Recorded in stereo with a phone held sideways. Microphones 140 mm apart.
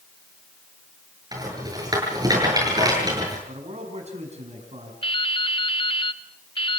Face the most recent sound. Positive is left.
turn(degrees=40)  # may be behind; listen again after turning